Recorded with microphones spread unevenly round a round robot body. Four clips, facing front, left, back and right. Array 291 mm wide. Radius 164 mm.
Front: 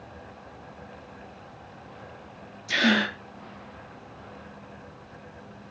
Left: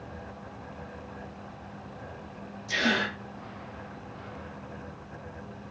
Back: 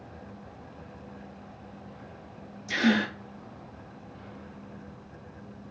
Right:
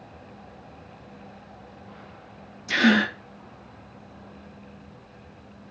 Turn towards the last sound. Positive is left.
turn(degrees=-80)